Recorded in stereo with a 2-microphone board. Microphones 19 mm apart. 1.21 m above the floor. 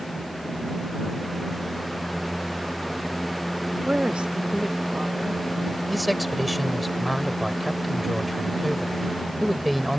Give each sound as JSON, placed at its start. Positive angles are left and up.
{"t": 3.9, "sound": "a woman speaking", "side_deg": -65}
{"t": 5.9, "sound": "a man speaking", "side_deg": 0}